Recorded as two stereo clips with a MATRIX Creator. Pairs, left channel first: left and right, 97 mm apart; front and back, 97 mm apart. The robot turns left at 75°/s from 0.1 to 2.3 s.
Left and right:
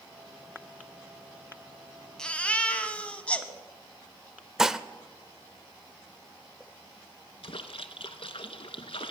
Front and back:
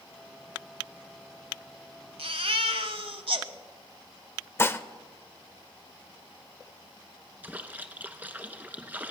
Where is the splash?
105° left, 1.0 m.